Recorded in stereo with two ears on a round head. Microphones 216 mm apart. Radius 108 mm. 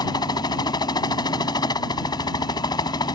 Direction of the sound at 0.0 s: 20° left (ahead or behind).